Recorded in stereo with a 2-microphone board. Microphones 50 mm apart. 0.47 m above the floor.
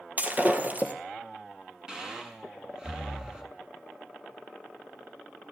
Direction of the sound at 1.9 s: 15° right (ahead or behind).